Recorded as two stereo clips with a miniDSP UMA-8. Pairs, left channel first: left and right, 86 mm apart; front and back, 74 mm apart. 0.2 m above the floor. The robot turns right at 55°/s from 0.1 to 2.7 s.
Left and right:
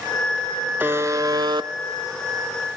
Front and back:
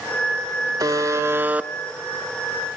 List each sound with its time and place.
0.8 s a buzzer: 155° right, 0.6 m; by 1.7 s 105° right, 0.6 m